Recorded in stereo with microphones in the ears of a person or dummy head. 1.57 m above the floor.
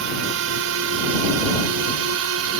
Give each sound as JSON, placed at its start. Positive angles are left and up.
{"t": 0.0, "sound": "a drone", "side_deg": -70}